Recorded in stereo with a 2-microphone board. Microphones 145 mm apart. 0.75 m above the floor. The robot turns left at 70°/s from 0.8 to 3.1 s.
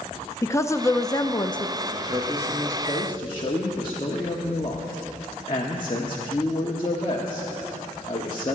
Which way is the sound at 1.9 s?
130° right.